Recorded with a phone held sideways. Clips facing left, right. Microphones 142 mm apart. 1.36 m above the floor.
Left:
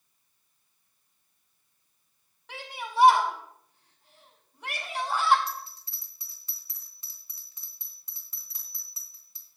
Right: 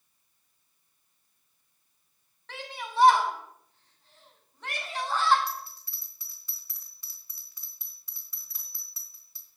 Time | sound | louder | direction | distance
2.5 | a shout | left 1 dB | 10° left (ahead or behind) | 4.5 m
5.5 | a bell | even | 20° left (ahead or behind) | 3.5 m